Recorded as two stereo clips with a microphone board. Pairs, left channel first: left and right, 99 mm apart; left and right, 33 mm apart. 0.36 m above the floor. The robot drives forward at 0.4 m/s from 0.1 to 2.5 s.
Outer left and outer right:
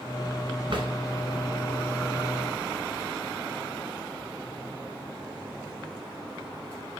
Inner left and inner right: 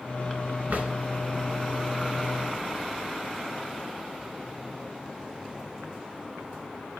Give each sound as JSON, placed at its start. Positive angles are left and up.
{"t": 0.7, "sound": "a drawer", "side_deg": -60, "distance_m": 1.4}